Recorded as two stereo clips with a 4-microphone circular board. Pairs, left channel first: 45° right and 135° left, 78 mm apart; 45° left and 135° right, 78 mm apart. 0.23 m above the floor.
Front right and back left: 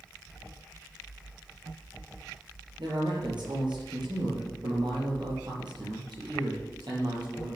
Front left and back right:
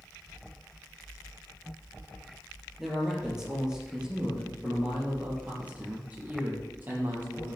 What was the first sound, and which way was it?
A man speaking, 140° left.